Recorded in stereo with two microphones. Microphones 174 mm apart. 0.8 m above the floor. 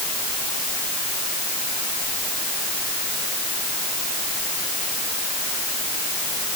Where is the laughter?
No laughter in this recording.